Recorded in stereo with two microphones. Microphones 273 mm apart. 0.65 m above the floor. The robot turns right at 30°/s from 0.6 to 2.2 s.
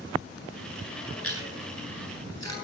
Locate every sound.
1.2 s chewing: 60° left (ahead or behind), 9.5 m; by 2.5 s 85° left, 9.5 m